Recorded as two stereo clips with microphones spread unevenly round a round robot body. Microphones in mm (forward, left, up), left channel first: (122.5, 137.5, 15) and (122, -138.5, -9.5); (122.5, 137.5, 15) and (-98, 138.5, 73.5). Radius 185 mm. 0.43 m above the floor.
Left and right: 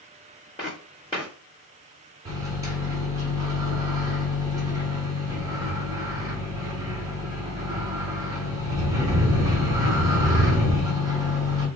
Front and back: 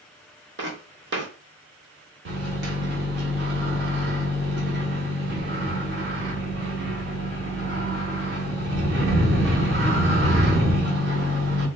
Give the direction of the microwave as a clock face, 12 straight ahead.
5 o'clock.